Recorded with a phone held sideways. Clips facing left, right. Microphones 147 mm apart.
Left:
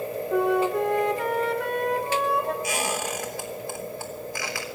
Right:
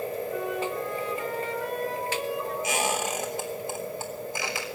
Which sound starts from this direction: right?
A squeak, at 2.6 s.